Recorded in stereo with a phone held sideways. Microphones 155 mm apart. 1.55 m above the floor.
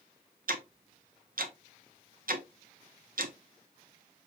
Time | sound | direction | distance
0.5 | ticking | 65° right (ahead or behind) | 0.7 m